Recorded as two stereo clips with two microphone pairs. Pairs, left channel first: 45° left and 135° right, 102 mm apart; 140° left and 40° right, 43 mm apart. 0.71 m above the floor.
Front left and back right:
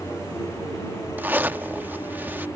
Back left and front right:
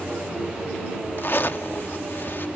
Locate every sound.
1.2 s a zipper: 150° left